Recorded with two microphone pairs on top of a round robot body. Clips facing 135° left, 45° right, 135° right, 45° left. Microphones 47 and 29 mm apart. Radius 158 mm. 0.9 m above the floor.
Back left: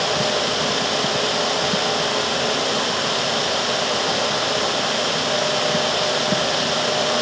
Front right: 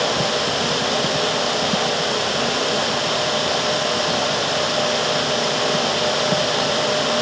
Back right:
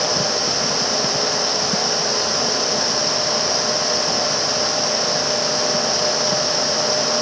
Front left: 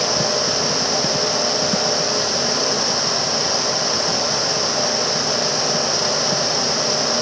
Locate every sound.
Only background noise.